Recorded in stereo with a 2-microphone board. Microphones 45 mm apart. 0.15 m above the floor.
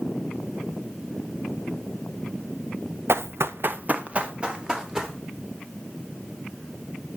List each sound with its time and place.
3.1 s running footsteps: 65° right (ahead or behind), 0.6 m; by 5.2 s 15° right (ahead or behind), 2.5 m